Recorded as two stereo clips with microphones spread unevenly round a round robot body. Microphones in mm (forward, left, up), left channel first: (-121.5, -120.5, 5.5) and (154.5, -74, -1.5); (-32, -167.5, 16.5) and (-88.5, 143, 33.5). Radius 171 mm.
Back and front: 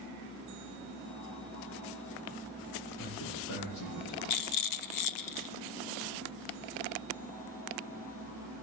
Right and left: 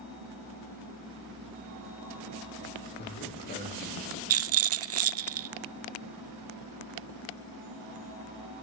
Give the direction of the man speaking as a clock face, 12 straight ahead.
5 o'clock.